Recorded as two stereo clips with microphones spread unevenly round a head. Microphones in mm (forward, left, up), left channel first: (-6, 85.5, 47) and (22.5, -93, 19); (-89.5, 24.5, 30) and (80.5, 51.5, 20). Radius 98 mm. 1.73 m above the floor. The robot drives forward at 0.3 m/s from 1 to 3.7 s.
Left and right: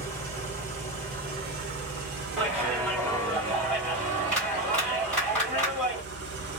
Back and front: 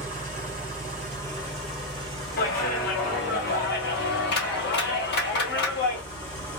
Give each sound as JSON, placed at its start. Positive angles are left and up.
{"t": 0.0, "sound": "an engine running", "azimuth_deg": -40, "distance_m": 1.3}
{"t": 2.4, "sound": "a clap", "azimuth_deg": 180, "distance_m": 1.3}